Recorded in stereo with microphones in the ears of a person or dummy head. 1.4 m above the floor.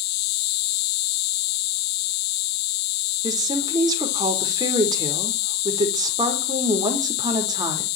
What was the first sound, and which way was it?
An insect, 55° left (ahead or behind).